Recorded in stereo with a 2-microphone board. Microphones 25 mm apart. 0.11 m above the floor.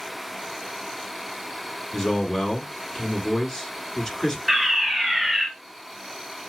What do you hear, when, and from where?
1.9 s a man speaking: 30° left (ahead or behind), 1.8 m
4.5 s a fire alarm: 5° left (ahead or behind), 2.5 m